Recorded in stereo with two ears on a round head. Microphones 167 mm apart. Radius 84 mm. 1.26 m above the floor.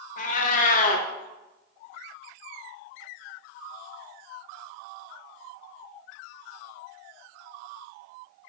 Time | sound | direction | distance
0.2 | a cat meowing | 45° left (ahead or behind) | 0.6 m